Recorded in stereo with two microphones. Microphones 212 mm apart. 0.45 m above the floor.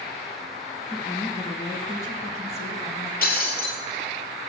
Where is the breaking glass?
45° left (ahead or behind), 3 m.